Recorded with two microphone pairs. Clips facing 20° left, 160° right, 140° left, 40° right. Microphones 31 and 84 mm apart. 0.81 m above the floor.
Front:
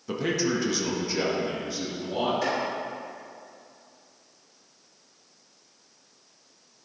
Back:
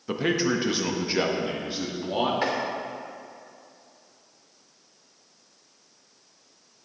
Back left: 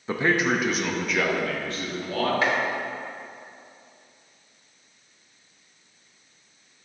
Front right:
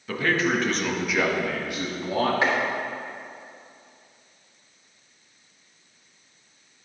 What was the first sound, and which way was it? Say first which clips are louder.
A man speaking: back 2 dB, back left 1 dB; 155° left.